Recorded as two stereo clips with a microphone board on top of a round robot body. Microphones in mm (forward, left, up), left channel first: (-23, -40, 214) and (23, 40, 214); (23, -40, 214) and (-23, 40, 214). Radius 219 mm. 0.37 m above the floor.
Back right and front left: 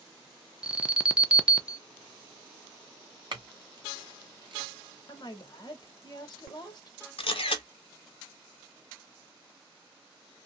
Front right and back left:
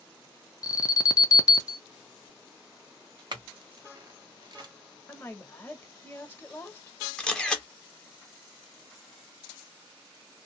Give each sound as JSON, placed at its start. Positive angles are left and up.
{"t": 0.6, "sound": "an alarm", "azimuth_deg": -15, "distance_m": 0.8}
{"t": 3.3, "sound": "a clink", "azimuth_deg": 85, "distance_m": 1.6}
{"t": 5.1, "sound": "a woman speaking", "azimuth_deg": -120, "distance_m": 1.3}
{"t": 7.2, "sound": "a camera shutter", "azimuth_deg": -140, "distance_m": 0.6}